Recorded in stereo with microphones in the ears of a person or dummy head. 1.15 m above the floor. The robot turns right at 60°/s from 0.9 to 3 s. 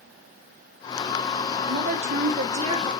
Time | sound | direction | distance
1.7 | a woman speaking | 105° right | 0.9 m